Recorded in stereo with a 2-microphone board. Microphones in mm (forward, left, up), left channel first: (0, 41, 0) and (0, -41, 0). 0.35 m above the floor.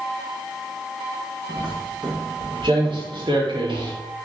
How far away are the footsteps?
About 4 m.